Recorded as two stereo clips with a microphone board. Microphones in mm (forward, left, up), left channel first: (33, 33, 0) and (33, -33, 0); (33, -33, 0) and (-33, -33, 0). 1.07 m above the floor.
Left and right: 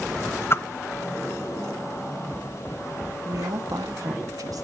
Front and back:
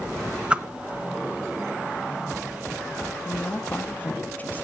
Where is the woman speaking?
65° right, 1.5 m.